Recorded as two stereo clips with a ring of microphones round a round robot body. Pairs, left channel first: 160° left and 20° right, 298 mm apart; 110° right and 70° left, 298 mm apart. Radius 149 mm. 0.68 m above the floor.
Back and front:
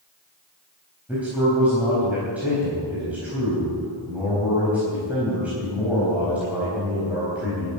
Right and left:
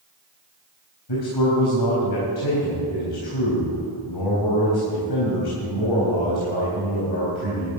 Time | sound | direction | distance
1.1 | a man speaking | 110° right | 4 m